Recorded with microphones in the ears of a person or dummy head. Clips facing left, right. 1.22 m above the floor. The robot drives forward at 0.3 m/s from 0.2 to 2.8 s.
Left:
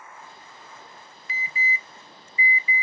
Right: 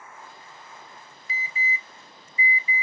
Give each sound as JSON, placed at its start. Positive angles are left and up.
{"t": 1.3, "sound": "an alarm", "side_deg": 60, "distance_m": 0.5}